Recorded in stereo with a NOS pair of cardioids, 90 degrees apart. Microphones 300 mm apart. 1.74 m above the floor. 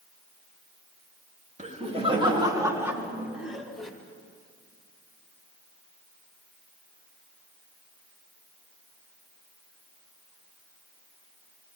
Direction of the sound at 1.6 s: 25° right.